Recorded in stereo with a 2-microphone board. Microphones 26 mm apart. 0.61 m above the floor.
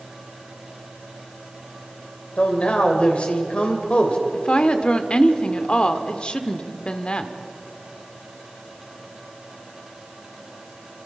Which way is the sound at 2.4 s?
55° left (ahead or behind).